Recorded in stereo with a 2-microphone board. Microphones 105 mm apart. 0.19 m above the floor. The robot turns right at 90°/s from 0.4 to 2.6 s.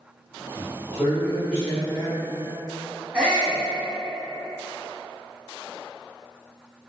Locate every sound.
0.5 s a man speaking: 115° left, 1.6 m; by 2.2 s 100° right, 1.6 m
3.1 s a shout: 10° right (ahead or behind), 1.1 m